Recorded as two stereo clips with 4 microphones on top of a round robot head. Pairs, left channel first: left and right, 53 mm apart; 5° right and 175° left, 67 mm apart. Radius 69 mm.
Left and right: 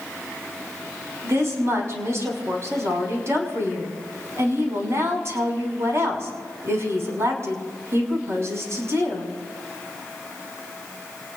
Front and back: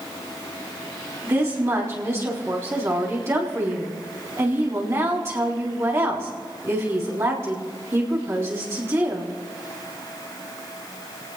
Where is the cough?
No cough in this recording.